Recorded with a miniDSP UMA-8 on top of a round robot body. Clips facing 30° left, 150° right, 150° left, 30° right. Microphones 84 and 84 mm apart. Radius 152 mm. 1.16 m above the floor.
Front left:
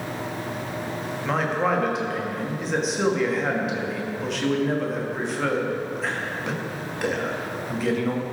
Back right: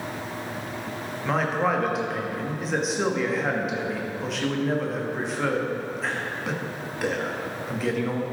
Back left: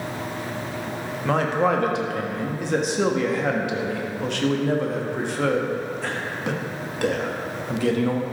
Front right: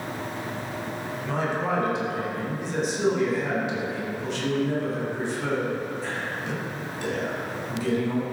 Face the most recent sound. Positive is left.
turn(degrees=120)